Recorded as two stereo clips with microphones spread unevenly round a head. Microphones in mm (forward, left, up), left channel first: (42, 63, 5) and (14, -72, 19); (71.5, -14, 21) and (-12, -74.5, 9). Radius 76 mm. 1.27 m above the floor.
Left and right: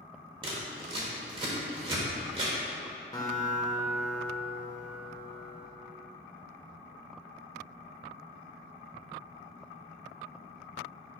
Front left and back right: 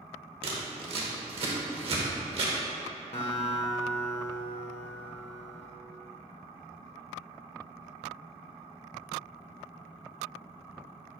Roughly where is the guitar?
Ahead.